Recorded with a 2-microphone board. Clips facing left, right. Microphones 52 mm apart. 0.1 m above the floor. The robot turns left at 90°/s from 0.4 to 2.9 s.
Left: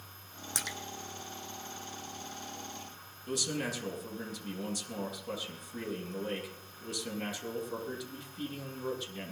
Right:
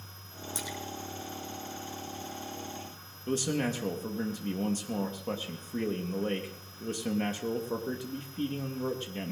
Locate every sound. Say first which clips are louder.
0.6 s a splash: even; 70° left (ahead or behind), 1.1 m; by 0.8 s 55° left (ahead or behind), 1.1 m
3.3 s a man speaking: right 5 dB; 40° right (ahead or behind), 3 m